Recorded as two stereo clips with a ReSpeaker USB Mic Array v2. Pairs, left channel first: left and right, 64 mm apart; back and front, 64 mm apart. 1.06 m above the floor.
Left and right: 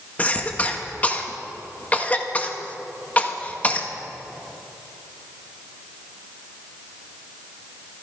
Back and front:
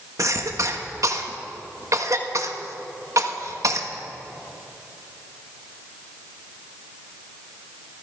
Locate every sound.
0.2 s a cough: 25° left, 1.4 m